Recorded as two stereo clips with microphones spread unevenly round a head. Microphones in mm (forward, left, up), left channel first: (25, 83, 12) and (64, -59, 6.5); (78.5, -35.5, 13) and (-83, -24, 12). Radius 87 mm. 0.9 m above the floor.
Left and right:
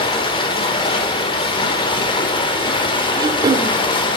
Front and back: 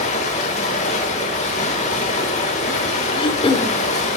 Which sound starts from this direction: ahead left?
Running water, at 0.0 s.